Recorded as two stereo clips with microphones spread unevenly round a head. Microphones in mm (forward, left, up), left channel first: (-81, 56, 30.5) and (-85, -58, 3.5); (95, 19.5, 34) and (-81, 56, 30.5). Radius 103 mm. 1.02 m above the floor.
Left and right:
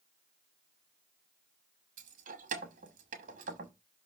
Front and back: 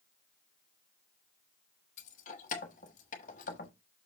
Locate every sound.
2.0 s keys jangling: 65° right, 1.0 m